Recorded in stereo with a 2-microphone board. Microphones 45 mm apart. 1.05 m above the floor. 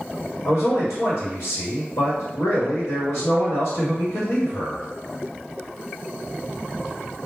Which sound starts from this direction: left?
A man speaking, at 0.5 s.